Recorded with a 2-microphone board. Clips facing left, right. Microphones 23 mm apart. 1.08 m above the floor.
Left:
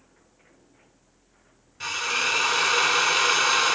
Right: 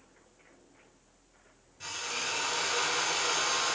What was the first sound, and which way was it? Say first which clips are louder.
A drill: left 10 dB; 45° left (ahead or behind).